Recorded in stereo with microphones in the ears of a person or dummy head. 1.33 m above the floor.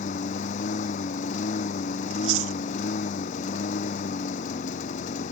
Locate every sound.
0.0 s a lawn mower: 45° left (ahead or behind)
2.1 s chewing: 80° right